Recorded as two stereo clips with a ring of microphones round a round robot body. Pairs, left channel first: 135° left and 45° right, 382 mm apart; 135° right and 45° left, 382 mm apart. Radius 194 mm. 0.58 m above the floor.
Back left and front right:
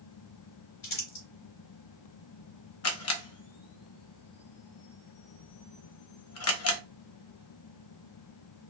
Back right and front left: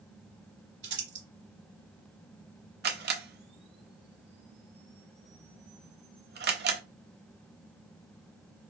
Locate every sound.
0.8 s crumpling: 105° left, 2.5 m
2.8 s a camera shutter: 100° left, 0.7 m